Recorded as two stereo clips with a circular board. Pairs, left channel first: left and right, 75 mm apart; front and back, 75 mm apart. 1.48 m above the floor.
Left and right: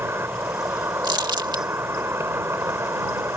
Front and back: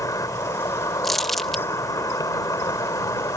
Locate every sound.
0.0 s an insect: 40° right
1.0 s crumpling: 85° right